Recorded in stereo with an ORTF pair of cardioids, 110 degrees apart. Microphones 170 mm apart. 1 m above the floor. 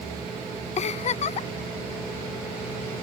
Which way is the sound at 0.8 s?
45° left.